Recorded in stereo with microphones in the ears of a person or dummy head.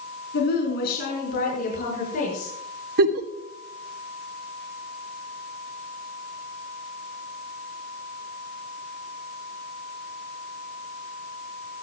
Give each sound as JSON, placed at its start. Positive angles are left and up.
{"t": 0.3, "sound": "a woman speaking", "side_deg": 65, "distance_m": 4.5}
{"t": 3.0, "sound": "a giggle", "side_deg": -55, "distance_m": 1.1}